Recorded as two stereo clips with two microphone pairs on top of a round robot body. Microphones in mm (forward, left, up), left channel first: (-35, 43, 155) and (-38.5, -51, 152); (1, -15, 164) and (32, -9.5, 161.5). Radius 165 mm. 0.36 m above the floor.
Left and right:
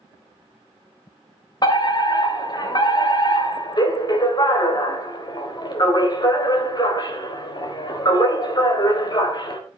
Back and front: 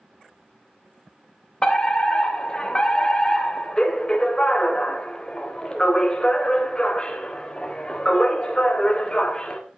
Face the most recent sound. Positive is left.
turn(degrees=125)